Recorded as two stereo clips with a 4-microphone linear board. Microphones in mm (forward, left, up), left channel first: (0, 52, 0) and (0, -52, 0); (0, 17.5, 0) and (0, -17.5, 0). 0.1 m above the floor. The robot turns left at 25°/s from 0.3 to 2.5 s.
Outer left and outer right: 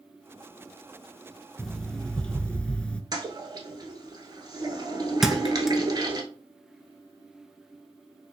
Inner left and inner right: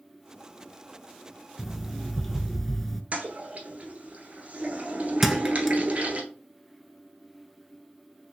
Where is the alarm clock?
Centre (ahead or behind), 0.5 m; by 3.0 s 10° left (ahead or behind), 0.5 m.